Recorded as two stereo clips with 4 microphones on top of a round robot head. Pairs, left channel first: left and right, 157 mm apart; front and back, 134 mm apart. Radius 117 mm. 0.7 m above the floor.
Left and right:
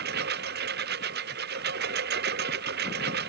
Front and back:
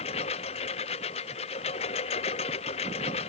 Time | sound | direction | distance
0.0 | a lawn mower | 60° right | ?